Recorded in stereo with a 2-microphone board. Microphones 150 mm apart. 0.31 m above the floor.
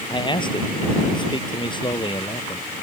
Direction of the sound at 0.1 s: 30° left (ahead or behind).